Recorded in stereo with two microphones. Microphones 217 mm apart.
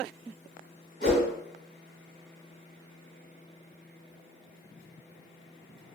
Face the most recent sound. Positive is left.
turn(degrees=50)  # may be behind; listen again after turning